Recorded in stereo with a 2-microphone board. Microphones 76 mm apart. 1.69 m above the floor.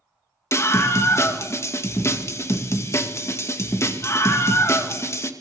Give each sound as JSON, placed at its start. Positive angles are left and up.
{"t": 0.5, "sound": "a scream", "side_deg": 35, "distance_m": 2.5}